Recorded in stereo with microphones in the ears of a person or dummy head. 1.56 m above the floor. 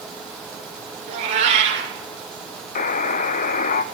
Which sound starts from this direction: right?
A cat meowing, at 1.1 s.